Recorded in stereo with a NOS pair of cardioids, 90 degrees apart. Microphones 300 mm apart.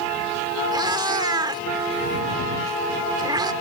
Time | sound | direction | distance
0.7 | a cat meowing | 15° right | ?